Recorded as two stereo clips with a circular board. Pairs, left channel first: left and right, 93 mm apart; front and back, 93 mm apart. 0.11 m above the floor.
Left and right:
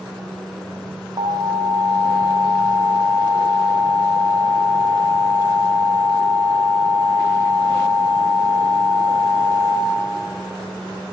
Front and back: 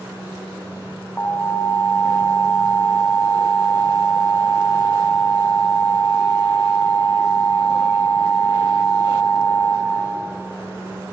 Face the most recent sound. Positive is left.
turn(degrees=-75)